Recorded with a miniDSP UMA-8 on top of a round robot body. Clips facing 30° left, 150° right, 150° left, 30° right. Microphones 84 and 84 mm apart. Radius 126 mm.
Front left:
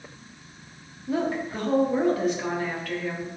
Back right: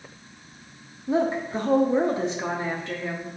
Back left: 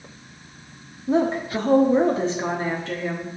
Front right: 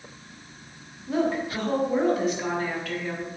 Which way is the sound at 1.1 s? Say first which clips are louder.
Back right 3 dB, back left 4 dB; 170° left.